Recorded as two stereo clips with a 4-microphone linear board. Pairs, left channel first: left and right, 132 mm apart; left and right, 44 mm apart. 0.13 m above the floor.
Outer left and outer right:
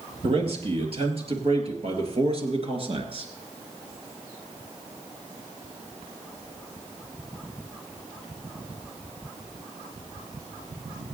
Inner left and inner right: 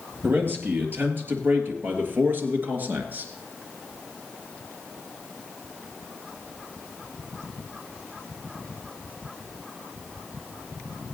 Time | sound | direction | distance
0.2 | a man speaking | 50° right (ahead or behind) | 3.5 m